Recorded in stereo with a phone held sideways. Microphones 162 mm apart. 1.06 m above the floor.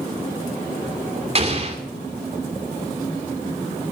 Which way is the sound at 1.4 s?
40° right (ahead or behind).